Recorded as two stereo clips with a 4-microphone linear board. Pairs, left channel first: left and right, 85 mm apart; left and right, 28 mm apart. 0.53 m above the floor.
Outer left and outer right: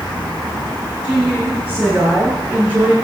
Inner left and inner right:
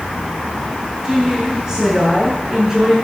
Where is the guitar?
No guitar in this recording.